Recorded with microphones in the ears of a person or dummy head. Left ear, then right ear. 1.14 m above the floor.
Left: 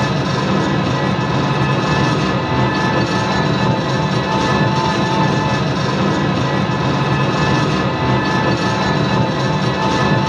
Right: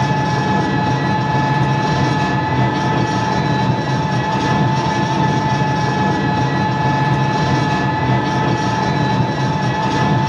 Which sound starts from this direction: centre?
An engine running, at 0.0 s.